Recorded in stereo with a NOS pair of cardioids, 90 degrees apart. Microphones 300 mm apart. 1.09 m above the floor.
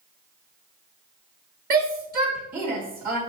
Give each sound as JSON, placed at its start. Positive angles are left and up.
{"t": 1.7, "sound": "a shout", "azimuth_deg": -30, "distance_m": 1.9}